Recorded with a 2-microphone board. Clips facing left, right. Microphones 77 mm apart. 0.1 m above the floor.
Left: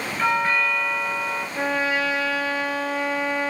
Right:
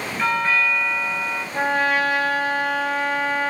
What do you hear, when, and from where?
0.2 s a doorbell: 5° left (ahead or behind), 2 m
1.5 s a trumpet: 50° right (ahead or behind), 1.1 m